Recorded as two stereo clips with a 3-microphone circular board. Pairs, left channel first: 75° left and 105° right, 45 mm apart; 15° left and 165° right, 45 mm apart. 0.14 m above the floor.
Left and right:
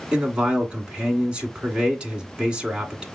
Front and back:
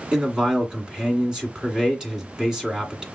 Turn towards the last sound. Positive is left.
turn(degrees=-120)